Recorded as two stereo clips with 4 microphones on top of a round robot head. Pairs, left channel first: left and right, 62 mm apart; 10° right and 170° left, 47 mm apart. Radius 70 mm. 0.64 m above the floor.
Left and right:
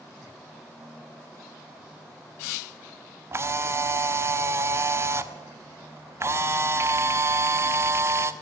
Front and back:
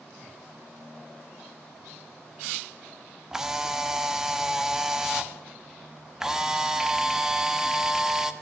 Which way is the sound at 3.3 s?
115° right.